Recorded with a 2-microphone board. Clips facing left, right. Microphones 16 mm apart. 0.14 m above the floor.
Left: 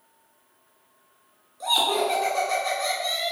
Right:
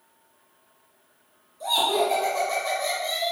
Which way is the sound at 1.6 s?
30° left (ahead or behind).